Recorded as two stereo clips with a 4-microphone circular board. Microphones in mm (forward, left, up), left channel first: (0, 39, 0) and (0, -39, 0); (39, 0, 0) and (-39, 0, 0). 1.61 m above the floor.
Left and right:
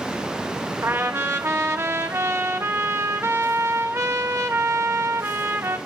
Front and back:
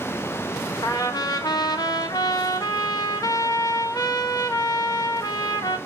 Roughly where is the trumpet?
Ahead right.